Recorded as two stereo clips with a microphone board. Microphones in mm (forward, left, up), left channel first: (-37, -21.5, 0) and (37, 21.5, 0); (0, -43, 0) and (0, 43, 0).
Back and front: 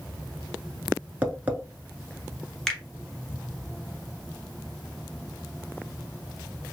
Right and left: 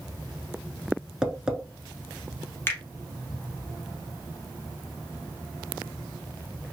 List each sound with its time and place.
1.2 s tapping: 30° left, 0.7 m
2.7 s a finger snap: 75° right, 1.0 m